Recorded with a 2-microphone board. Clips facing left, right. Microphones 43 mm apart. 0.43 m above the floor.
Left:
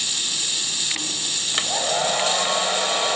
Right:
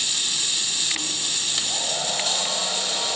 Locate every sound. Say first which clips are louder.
1.5 s a hair dryer: left 5 dB; 45° left (ahead or behind), 2 m